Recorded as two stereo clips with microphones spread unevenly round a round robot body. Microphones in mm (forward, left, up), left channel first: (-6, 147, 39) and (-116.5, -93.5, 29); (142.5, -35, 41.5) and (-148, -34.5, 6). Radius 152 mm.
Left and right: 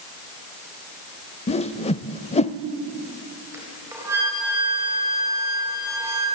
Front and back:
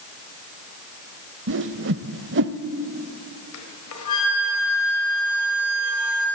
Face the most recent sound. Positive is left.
turn(degrees=-35)